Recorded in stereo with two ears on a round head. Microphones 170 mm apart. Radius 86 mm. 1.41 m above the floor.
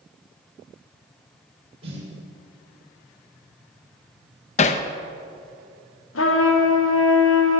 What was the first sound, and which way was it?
A snare drum, 35° right (ahead or behind).